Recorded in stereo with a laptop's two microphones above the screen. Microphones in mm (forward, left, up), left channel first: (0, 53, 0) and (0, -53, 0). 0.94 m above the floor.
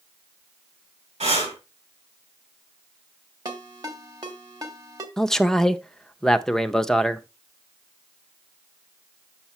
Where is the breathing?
90° right, 3.5 m.